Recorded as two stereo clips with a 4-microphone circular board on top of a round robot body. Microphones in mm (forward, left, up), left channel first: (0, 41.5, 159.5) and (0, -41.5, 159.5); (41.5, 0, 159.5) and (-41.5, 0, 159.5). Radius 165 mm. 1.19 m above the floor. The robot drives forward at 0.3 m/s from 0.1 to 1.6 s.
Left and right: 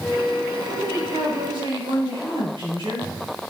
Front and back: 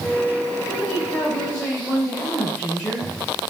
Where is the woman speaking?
75° right, 6 m; by 3.1 s 80° right, 6 m.